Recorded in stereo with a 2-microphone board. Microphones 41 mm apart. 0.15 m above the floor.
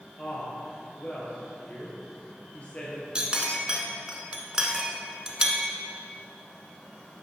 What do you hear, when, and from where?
0.2 s a woman speaking: 35° left (ahead or behind), 2.5 m
3.1 s a clink: 20° right (ahead or behind), 0.9 m